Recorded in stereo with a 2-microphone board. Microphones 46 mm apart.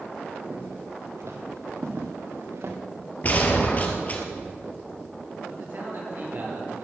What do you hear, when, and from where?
0.4 s footsteps: 75° right (ahead or behind), 4.5 m; by 2.8 s 65° right (ahead or behind), 3 m
3.2 s a gunshot: 35° left (ahead or behind), 2 m
5.5 s a man speaking: 50° right (ahead or behind), 6 m